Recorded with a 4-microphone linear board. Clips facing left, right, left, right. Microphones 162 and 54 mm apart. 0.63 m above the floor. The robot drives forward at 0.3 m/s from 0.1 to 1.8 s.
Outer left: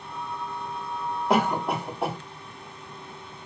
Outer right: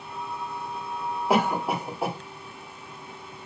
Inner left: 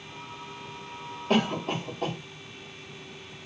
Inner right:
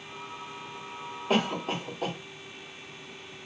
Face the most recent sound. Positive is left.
turn(degrees=-5)  # may be behind; listen again after turning